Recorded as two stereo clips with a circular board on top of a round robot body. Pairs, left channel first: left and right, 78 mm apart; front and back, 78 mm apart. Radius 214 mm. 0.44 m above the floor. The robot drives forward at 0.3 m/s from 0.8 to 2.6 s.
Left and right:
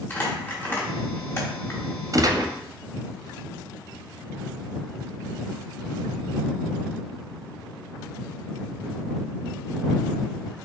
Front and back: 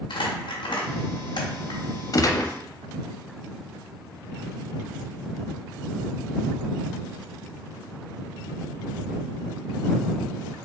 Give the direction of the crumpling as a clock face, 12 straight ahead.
11 o'clock.